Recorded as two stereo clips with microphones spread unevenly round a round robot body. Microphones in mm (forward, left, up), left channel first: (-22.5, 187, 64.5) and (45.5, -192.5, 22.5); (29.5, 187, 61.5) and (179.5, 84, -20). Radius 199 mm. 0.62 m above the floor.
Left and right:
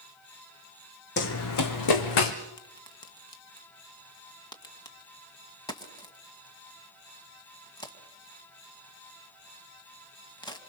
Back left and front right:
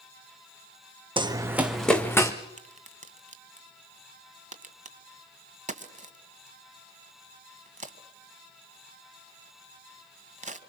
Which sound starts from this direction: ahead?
A crack, at 2.6 s.